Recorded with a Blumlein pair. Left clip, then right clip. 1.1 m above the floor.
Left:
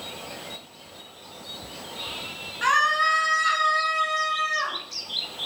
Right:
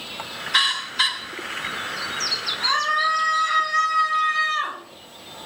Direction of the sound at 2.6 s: 30° left.